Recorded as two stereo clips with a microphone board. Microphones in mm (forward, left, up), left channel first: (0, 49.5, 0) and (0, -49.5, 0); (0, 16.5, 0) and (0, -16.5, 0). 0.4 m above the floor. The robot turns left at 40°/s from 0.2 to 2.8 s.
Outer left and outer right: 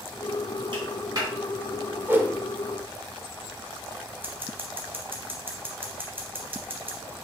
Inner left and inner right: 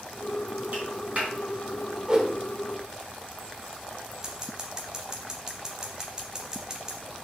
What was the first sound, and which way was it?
A clap, 55° right (ahead or behind).